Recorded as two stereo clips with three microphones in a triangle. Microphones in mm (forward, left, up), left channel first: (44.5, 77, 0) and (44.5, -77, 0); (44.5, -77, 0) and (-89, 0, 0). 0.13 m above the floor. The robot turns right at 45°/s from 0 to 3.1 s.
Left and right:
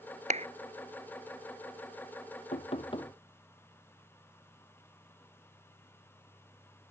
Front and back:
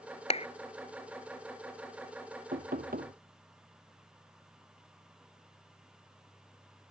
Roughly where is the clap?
Ahead right.